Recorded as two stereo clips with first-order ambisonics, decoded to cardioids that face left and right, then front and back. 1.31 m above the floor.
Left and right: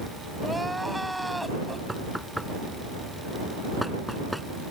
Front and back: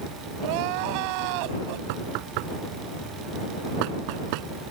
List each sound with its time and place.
0.4 s crying: straight behind
1.9 s knocking: straight behind